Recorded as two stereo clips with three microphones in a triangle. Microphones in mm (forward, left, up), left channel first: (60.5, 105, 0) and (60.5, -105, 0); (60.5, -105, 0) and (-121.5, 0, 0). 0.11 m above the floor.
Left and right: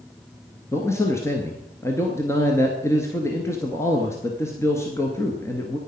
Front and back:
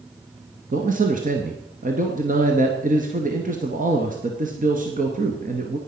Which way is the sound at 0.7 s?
160° left.